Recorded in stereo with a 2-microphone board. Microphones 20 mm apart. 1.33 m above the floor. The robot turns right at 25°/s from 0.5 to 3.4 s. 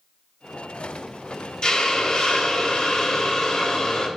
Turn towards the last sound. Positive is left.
turn(degrees=115)